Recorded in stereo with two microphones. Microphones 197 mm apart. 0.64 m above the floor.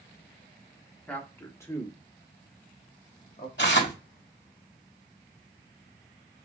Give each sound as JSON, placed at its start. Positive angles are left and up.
{"t": 1.1, "sound": "a man speaking", "side_deg": 10, "distance_m": 1.5}
{"t": 3.6, "sound": "tearing paper", "side_deg": 70, "distance_m": 3.0}